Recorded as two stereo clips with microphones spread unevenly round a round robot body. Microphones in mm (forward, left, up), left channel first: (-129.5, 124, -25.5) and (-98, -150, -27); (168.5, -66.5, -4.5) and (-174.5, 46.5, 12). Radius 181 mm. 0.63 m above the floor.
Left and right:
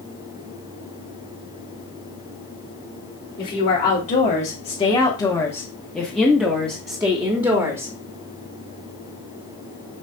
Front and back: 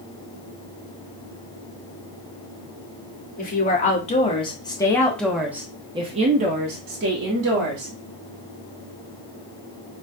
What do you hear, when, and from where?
3.4 s a woman speaking: 40° left, 1.5 m; by 7.9 s 150° right, 1.4 m